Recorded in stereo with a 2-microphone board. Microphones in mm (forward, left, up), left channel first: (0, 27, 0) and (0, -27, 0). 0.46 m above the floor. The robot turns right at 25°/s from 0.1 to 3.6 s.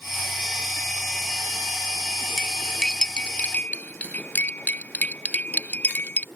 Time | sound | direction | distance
2.4 | cutlery clinking | 5° right (ahead or behind) | ?